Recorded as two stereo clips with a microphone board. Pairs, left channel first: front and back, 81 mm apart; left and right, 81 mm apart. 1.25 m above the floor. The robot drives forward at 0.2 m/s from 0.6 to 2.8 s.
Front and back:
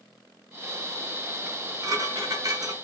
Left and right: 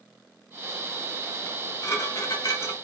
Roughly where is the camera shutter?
No camera shutter in this recording.